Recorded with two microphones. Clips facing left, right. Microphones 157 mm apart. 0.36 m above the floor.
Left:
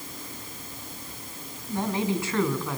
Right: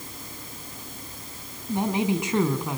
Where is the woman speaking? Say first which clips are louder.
Right 3 dB; 20° right (ahead or behind), 3.5 m.